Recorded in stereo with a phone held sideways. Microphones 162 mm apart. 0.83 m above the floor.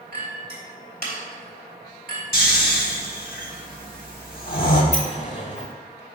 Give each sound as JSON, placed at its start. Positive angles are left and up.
{"t": 0.1, "sound": "a clink", "side_deg": -70, "distance_m": 2.0}
{"t": 2.3, "sound": "snoring", "side_deg": 65, "distance_m": 1.2}
{"t": 4.9, "sound": "a sliding door", "side_deg": 45, "distance_m": 1.0}